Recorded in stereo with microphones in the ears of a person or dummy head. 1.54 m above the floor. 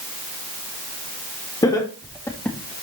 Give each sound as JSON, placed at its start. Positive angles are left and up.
{"t": 1.6, "sound": "laughter", "side_deg": 20, "distance_m": 2.5}